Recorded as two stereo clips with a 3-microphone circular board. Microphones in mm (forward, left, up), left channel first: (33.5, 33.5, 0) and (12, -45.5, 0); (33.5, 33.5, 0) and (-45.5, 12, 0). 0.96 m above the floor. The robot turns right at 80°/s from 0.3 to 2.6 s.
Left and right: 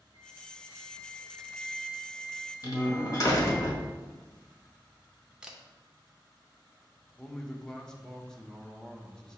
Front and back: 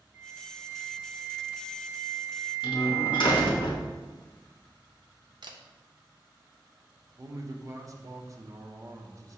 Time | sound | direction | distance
0.1 | a flute | 100° right | 1.4 m
2.6 | a door slam | 30° left | 0.8 m
5.4 | a camera shutter | 175° left | 0.5 m
7.2 | a man speaking | 155° left | 0.6 m